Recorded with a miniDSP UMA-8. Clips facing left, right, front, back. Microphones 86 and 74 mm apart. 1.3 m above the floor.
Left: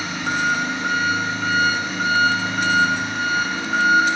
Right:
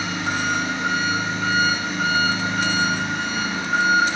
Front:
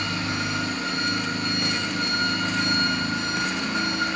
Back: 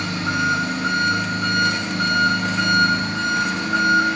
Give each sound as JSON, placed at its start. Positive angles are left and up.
{"t": 0.0, "sound": "an engine running", "azimuth_deg": 180, "distance_m": 5.5}